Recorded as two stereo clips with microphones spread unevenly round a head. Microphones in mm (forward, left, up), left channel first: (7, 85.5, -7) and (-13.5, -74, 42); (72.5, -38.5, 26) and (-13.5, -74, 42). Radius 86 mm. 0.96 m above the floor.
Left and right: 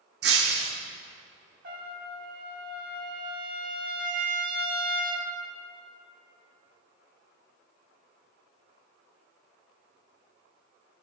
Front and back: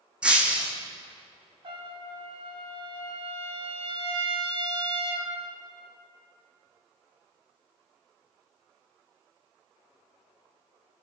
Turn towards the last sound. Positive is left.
turn(degrees=-130)